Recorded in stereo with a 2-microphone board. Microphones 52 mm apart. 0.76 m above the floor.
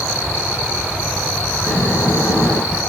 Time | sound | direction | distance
1.7 | snoring | 85° left | 6 m